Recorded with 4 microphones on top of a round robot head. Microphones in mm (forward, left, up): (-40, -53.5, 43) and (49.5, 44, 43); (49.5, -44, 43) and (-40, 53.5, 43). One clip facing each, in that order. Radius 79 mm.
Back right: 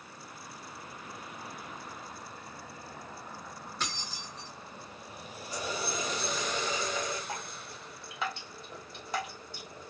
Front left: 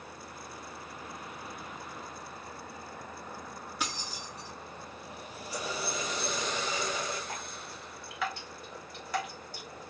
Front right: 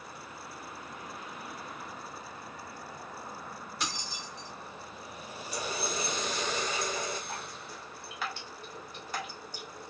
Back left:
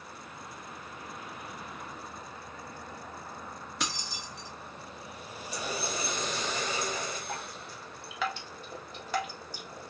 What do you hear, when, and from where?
3.8 s keys jangling: 125° left, 0.6 m
5.5 s a running tap: 130° left, 1.5 m
7.3 s dripping: 160° left, 0.9 m